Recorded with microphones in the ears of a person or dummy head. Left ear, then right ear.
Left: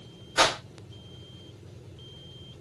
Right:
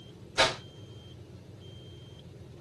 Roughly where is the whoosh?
Left.